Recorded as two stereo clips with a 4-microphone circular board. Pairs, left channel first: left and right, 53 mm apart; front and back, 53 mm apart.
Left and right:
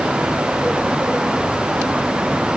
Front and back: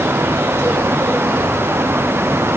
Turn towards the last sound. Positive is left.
No sound to turn to.